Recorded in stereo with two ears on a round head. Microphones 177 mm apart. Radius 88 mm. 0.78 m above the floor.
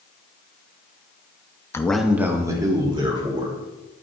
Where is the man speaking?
15° left (ahead or behind), 0.8 m; by 3.5 s 25° right (ahead or behind), 2.5 m.